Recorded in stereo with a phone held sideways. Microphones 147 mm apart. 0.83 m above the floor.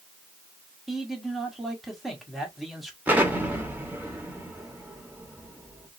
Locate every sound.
0.9 s a man speaking: centre (ahead or behind), 1.4 m
3.1 s an explosion: 10° right (ahead or behind), 1.0 m